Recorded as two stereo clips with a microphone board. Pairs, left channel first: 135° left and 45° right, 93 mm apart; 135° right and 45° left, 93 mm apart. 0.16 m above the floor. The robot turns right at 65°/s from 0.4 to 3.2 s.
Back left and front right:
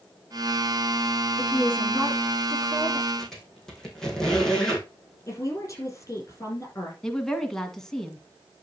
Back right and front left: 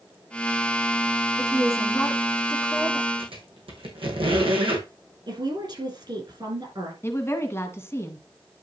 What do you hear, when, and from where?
1.4 s a woman speaking: 125° right, 1.8 m; by 3.1 s 15° right, 1.8 m
3.2 s a squeak: 50° left, 3.5 m
5.3 s a woman speaking: 80° left, 5 m
7.0 s a woman speaking: 145° right, 1.8 m